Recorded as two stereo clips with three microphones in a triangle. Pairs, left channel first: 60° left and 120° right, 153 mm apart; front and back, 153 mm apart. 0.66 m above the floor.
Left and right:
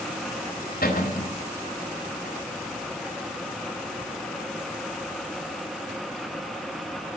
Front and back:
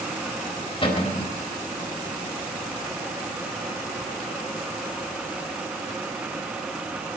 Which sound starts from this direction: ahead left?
A cupboard door, at 0.8 s.